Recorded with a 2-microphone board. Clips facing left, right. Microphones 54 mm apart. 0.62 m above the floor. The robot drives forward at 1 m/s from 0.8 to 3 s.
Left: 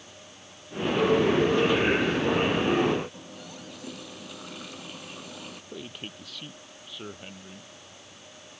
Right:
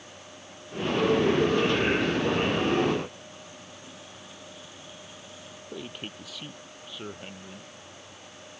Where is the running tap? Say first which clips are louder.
Left 2 dB; 90° left.